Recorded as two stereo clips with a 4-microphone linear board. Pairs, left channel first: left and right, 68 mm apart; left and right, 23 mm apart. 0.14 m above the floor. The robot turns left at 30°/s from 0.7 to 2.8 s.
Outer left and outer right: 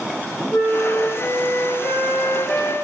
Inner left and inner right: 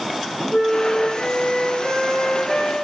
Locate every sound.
0.5 s a flute: 65° left, 1.4 m; by 2.7 s 5° left, 1.4 m